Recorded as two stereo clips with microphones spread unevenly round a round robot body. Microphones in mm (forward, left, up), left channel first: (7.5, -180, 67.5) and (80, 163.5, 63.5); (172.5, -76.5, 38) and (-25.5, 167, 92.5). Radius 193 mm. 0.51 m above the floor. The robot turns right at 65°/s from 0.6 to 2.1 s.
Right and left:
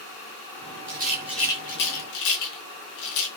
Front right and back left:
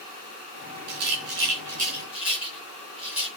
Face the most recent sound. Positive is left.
turn(degrees=-145)